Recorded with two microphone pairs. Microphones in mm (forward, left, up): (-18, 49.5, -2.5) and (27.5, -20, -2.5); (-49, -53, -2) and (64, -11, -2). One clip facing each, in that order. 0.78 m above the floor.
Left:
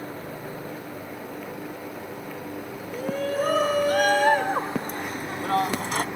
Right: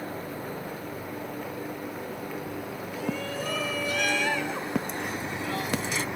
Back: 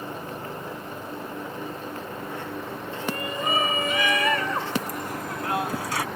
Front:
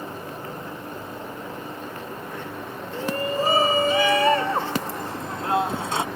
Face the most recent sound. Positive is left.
turn(degrees=85)